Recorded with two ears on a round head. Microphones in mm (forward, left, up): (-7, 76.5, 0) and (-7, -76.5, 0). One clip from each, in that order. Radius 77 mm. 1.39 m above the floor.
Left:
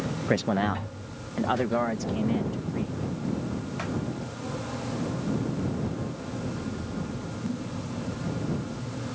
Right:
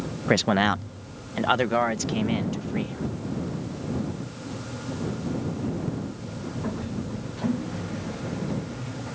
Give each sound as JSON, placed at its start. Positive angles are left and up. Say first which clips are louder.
{"t": 0.3, "sound": "a man speaking", "louder": "right 5 dB", "side_deg": -25}